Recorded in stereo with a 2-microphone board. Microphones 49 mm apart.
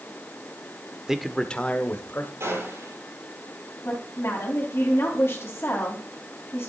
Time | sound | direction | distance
1.1 | a man speaking | 10° right (ahead or behind) | 1.0 m
2.4 | a gunshot | 75° right (ahead or behind) | 6.5 m
3.9 | a woman speaking | 50° left (ahead or behind) | 3.5 m